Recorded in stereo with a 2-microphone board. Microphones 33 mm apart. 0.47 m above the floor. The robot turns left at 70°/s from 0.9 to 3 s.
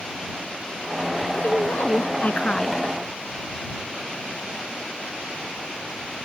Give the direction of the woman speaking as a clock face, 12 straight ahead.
8 o'clock.